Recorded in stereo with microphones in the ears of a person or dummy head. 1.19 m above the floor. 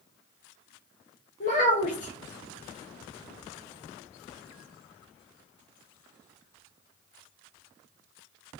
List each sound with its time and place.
1.4 s a child speaking: 45° left (ahead or behind), 0.5 m